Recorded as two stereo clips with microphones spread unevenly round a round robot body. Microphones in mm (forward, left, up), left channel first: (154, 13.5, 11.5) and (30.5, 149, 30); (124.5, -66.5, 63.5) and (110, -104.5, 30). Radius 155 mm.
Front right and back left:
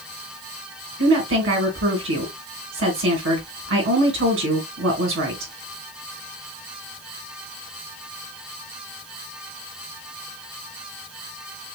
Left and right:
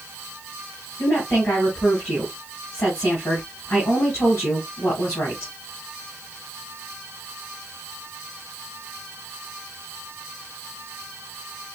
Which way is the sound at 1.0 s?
150° left.